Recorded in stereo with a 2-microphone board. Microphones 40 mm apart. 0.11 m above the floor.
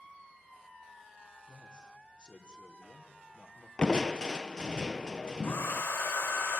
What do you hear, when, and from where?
1.5 s a man speaking: 30° right (ahead or behind), 3 m
3.8 s crushing: 20° left (ahead or behind), 0.5 m
5.4 s a hair dryer: 75° left (ahead or behind), 4 m